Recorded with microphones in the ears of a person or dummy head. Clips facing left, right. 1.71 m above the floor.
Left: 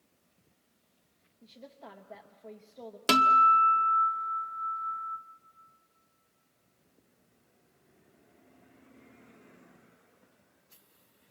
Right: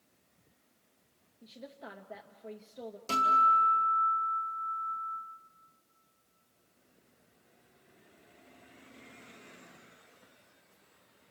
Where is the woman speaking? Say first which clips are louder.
Right 2 dB; 10° right (ahead or behind), 0.9 m.